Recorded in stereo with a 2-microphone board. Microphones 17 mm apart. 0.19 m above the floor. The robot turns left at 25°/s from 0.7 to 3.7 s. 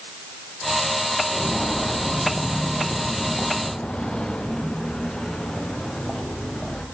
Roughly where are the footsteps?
Left.